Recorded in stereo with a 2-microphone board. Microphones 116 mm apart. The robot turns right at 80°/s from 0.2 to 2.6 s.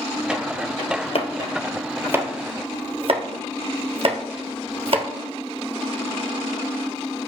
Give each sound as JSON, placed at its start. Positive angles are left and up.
{"t": 1.1, "sound": "chopping", "side_deg": 60, "distance_m": 1.2}